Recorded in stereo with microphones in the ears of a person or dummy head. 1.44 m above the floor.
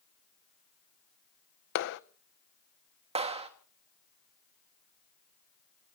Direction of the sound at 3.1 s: 30° right (ahead or behind).